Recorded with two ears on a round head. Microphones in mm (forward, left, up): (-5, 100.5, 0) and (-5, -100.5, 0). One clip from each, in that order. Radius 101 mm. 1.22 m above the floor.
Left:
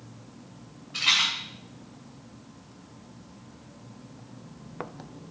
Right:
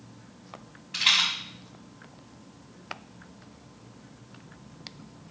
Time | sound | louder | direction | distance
0.9 | a rattle | right 1 dB | 70° right (ahead or behind) | 5 m